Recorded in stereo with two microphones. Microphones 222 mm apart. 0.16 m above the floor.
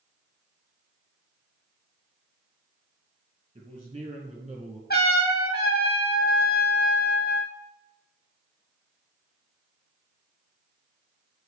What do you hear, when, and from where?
3.5 s a man speaking: 25° right (ahead or behind), 4.5 m; by 4.8 s 30° right (ahead or behind), 4 m
4.9 s a trumpet: 45° left (ahead or behind), 1.3 m